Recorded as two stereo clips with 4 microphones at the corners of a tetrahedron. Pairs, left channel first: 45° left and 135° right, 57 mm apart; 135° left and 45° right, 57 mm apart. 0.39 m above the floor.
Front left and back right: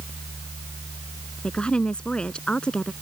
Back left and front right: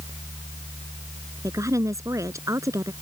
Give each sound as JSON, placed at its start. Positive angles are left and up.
{"t": 1.4, "sound": "a woman speaking", "azimuth_deg": -30}